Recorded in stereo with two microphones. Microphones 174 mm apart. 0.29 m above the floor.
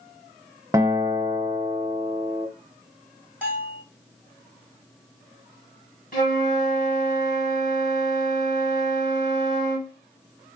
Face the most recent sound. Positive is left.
turn(degrees=50)  # may be behind; listen again after turning